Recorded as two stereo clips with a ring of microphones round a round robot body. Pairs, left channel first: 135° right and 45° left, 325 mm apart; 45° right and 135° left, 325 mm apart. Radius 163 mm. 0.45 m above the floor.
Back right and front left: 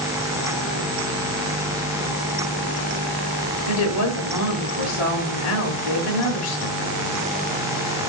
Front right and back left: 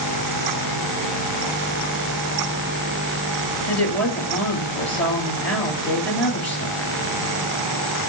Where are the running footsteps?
No running footsteps in this recording.